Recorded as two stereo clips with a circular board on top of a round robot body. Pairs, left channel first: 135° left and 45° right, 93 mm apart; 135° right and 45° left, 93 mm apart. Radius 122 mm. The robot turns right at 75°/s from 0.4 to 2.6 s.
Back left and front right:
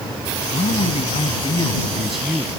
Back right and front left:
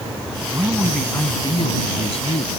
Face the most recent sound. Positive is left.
turn(degrees=-95)